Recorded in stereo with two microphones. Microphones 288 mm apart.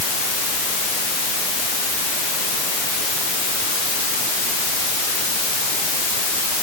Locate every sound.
Only background noise.